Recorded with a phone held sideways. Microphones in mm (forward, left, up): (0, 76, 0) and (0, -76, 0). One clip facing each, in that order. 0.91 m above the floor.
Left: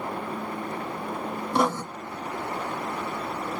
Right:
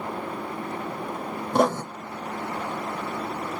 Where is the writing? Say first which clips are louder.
Right 3 dB; 50° right (ahead or behind), 1.3 m.